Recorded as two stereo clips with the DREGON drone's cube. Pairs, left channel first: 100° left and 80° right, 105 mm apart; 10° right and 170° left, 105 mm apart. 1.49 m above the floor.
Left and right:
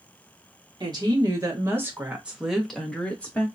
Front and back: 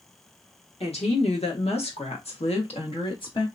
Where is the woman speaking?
30° right, 1.6 m; by 3.5 s 30° left, 1.5 m.